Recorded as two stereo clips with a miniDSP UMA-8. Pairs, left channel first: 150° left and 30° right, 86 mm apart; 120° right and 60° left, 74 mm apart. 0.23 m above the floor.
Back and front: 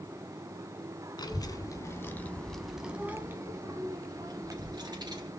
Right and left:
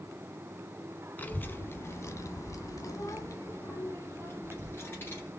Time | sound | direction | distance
1.2 | a child speaking | 175° left | 1.3 m